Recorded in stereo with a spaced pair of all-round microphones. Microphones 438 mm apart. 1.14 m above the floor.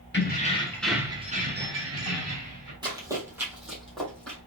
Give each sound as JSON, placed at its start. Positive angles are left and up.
{"t": 0.1, "sound": "keys jangling", "side_deg": 25, "distance_m": 0.8}
{"t": 2.8, "sound": "running footsteps", "side_deg": -10, "distance_m": 1.6}